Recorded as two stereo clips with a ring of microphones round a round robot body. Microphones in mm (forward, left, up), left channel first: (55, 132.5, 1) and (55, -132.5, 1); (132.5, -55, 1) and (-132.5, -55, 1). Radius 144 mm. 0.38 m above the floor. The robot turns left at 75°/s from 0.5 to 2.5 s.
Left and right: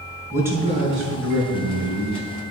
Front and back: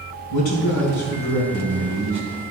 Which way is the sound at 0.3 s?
10° right.